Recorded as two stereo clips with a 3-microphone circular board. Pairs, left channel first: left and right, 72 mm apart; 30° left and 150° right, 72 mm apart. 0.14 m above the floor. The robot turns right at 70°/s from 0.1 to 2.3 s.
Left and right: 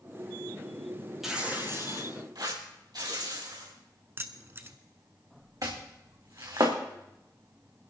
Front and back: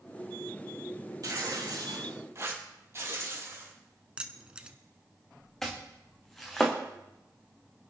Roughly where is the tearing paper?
Behind.